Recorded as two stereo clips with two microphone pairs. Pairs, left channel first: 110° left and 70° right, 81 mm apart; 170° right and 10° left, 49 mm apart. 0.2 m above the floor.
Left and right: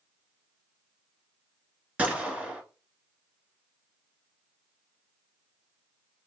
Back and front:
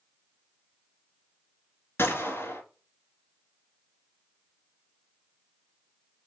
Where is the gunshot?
145° right, 1.3 m.